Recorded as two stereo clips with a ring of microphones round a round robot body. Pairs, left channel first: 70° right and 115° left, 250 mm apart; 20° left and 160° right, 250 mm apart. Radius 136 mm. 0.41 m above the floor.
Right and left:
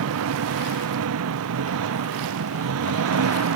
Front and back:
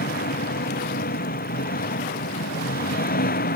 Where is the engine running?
80° left.